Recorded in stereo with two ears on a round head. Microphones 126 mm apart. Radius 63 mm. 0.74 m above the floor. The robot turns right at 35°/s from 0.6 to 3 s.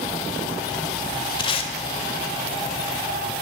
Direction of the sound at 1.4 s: 30° left (ahead or behind).